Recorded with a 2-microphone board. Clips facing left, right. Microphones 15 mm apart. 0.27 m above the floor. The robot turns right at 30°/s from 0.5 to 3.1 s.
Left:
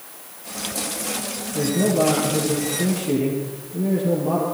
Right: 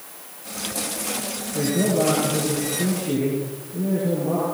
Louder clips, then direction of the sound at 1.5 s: Left 1 dB; 20° right.